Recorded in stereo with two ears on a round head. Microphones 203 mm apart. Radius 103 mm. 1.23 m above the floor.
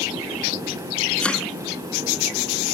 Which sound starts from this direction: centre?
Chopping, at 1.2 s.